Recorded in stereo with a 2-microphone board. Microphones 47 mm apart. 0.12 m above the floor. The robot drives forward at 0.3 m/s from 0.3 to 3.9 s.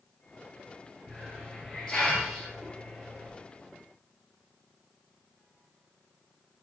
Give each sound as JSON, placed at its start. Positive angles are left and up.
{"t": 1.1, "sound": "a hiss", "side_deg": 15, "distance_m": 2.0}